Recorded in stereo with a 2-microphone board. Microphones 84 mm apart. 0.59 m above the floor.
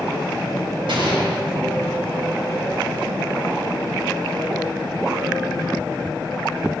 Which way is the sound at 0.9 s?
75° right (ahead or behind).